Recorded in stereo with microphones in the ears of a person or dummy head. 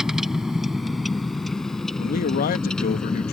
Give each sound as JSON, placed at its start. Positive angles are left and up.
{"t": 0.0, "sound": "a vehicle", "side_deg": -5}
{"t": 2.0, "sound": "a man speaking", "side_deg": 50}